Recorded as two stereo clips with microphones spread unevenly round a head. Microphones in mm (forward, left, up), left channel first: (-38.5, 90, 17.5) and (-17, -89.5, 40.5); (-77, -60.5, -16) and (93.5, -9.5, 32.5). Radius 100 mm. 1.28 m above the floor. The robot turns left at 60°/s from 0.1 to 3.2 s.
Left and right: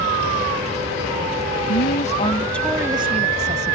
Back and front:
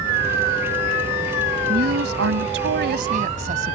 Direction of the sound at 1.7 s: 65° left.